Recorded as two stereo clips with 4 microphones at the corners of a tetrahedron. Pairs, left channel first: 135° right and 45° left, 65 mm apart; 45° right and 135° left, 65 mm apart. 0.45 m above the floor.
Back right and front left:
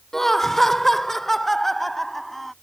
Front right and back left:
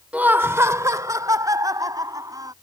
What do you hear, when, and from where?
0.1 s laughter: 150° left; by 2.5 s 140° left